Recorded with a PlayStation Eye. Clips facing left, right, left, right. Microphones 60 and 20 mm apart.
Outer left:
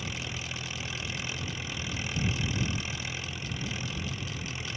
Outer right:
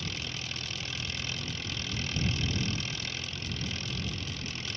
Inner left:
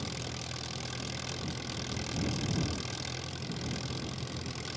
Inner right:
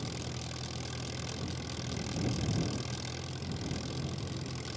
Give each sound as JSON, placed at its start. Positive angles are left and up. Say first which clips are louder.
{"t": 0.0, "sound": "an engine running", "louder": "outer left 1 dB, inner left 1 dB", "side_deg": 15}